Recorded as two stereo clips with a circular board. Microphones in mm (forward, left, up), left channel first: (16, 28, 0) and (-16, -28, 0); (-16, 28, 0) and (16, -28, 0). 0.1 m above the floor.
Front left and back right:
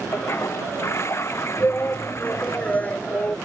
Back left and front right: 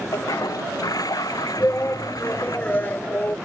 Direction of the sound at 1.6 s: 105° left.